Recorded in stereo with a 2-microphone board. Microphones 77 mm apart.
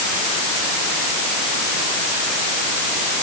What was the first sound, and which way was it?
Only background noise.